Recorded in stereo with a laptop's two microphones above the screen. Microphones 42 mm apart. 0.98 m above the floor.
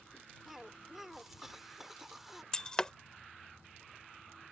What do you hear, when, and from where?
0.5 s a cough: 5° right (ahead or behind)
2.5 s breaking glass: 20° left (ahead or behind)